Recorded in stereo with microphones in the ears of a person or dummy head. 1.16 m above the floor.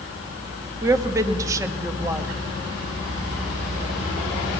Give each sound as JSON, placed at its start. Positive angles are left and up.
{"t": 0.8, "sound": "a woman speaking", "side_deg": -15, "distance_m": 1.8}